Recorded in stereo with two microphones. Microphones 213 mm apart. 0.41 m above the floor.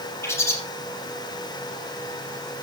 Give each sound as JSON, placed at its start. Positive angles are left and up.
{"t": 0.2, "sound": "a bird", "side_deg": 10, "distance_m": 4.0}